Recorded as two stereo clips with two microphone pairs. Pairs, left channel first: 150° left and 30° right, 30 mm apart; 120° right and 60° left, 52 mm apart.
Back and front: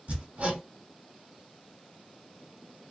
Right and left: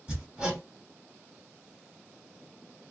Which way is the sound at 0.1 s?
10° right.